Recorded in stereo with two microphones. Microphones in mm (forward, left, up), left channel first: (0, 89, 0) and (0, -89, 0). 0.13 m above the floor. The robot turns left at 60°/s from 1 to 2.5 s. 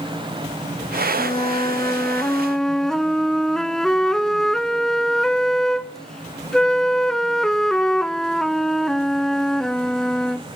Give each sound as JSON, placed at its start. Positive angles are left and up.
{"t": 1.2, "sound": "a flute", "side_deg": 30, "distance_m": 0.5}